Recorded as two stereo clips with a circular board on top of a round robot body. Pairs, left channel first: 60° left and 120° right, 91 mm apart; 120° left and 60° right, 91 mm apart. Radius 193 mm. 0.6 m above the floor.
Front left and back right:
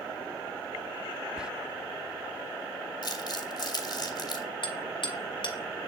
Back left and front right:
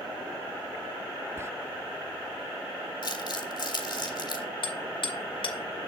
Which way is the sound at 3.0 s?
95° left.